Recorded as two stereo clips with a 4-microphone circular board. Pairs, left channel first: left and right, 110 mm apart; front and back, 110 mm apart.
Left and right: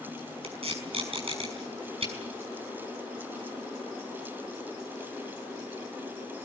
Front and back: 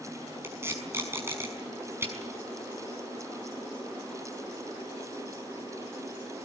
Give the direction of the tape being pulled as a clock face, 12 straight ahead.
4 o'clock.